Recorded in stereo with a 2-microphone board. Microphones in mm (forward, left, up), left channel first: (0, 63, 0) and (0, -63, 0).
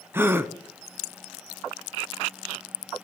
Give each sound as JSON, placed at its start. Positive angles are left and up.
{"t": 0.1, "sound": "a gasp", "side_deg": -15, "distance_m": 0.6}